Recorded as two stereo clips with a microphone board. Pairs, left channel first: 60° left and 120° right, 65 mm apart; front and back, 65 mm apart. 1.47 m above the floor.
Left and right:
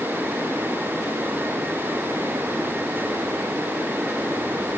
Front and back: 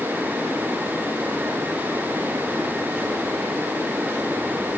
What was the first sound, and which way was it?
Only background noise.